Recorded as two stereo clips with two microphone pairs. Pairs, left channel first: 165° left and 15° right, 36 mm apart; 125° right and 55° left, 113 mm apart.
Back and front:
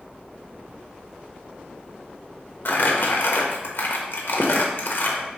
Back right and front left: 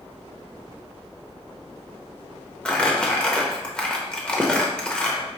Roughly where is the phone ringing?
No phone ringing in this recording.